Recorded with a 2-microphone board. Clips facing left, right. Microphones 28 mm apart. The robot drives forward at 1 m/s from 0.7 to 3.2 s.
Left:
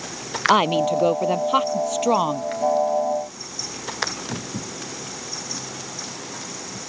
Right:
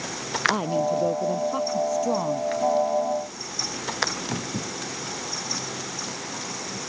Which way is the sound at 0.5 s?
80° left.